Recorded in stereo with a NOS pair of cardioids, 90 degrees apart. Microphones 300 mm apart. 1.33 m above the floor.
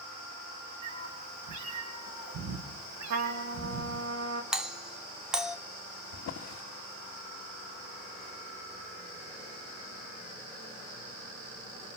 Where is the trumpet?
65° right, 3 m.